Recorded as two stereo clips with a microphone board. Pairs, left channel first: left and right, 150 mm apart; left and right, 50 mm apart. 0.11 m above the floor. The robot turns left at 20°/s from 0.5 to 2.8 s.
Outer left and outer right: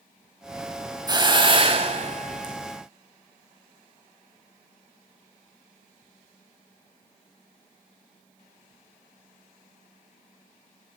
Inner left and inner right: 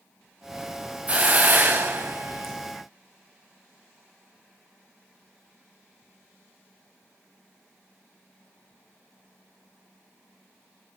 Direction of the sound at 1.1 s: 25° right (ahead or behind).